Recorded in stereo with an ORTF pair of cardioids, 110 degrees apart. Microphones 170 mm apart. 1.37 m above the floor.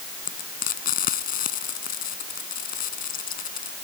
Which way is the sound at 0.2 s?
55° left.